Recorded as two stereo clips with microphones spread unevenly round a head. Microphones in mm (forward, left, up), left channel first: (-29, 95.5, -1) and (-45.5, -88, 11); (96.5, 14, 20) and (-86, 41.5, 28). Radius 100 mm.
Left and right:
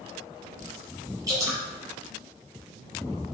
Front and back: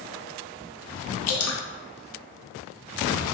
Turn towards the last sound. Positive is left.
turn(degrees=-20)